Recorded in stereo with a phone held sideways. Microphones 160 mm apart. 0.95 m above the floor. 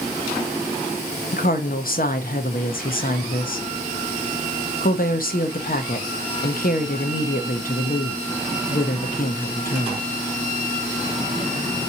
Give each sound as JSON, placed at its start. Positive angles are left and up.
{"t": 1.3, "sound": "a woman speaking", "side_deg": 60, "distance_m": 0.9}